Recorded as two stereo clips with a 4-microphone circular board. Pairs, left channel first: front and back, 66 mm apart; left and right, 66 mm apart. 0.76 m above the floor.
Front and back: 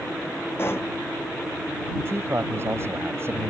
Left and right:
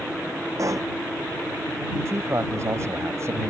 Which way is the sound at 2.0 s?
130° right.